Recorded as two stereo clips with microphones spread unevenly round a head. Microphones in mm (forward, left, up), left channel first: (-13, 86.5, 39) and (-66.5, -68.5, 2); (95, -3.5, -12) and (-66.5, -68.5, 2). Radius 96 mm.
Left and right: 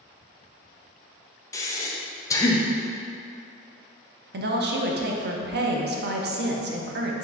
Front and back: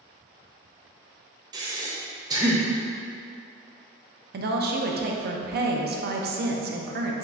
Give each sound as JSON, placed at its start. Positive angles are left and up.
{"t": 1.5, "sound": "breathing", "azimuth_deg": 135, "distance_m": 0.5}
{"t": 4.3, "sound": "a woman speaking", "azimuth_deg": -125, "distance_m": 0.6}